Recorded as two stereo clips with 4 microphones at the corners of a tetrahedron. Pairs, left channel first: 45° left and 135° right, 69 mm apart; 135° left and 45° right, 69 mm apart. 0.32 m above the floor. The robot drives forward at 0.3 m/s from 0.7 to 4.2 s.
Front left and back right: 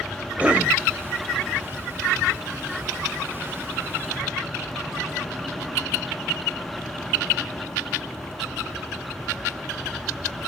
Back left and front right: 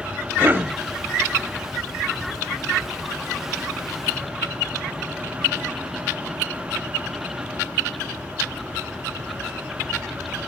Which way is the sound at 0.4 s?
75° right.